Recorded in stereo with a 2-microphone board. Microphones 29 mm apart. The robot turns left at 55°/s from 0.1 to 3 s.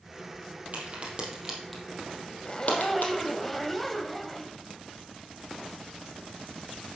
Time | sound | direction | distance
0.7 | a crack | 55° right (ahead or behind) | 3.5 m
2.5 | a zipper | 35° left | 0.8 m